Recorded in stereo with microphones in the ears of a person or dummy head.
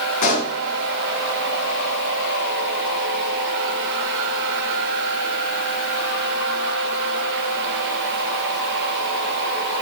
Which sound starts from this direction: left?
A pop, at 0.2 s.